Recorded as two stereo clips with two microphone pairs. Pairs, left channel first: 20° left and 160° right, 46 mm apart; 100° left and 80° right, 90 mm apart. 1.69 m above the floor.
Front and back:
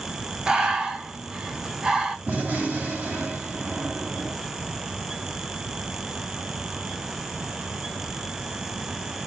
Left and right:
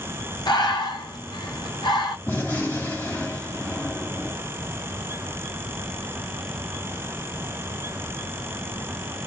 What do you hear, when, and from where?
0.5 s breathing: 130° left, 1.2 m
2.3 s a gunshot: 160° left, 2.5 m